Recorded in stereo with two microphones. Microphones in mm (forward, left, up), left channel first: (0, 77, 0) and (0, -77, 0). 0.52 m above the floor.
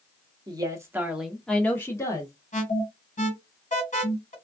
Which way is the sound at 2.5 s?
55° left (ahead or behind).